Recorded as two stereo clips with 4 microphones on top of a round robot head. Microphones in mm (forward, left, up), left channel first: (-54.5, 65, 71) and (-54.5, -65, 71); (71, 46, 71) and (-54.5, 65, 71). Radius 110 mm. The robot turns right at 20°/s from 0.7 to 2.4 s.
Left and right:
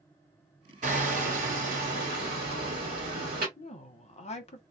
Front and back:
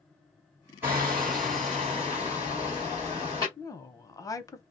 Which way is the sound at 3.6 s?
55° left.